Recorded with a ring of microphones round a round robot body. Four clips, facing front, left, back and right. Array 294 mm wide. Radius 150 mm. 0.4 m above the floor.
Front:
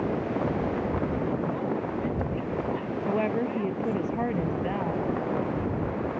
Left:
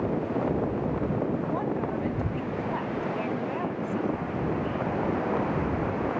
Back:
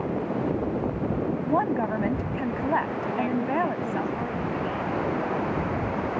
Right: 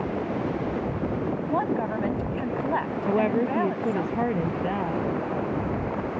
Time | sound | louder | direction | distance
1.5 | a woman speaking | right 3 dB, back 5 dB | 155° right | ?
3.1 | a woman speaking | right 7 dB, front 4 dB | 70° right | ?